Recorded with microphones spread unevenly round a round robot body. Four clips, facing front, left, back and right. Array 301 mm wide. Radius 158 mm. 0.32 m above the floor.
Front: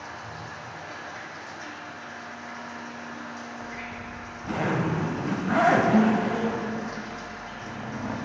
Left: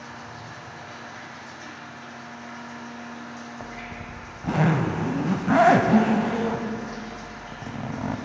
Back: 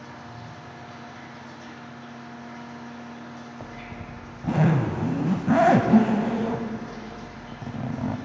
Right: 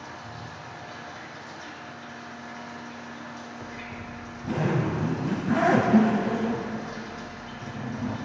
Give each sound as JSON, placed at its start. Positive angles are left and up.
{"t": 0.0, "sound": "running water", "azimuth_deg": 10, "distance_m": 6.0}
{"t": 3.6, "sound": "a zipper", "azimuth_deg": 165, "distance_m": 1.0}